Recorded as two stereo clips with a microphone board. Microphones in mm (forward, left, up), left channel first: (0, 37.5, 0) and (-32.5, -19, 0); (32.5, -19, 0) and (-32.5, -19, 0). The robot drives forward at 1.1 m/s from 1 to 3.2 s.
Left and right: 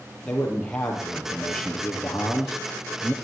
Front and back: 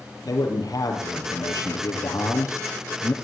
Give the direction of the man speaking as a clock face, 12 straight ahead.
1 o'clock.